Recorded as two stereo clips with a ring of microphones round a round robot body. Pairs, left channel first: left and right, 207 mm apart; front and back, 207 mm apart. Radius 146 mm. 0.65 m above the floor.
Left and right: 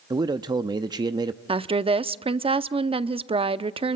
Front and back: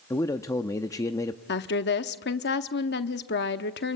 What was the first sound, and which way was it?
A man speaking, 55° right.